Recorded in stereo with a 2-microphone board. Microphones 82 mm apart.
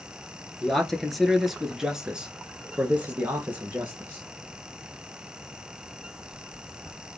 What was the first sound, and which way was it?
A man speaking, 5° left (ahead or behind).